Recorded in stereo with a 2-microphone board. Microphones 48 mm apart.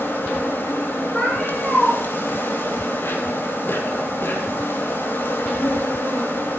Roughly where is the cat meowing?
Left.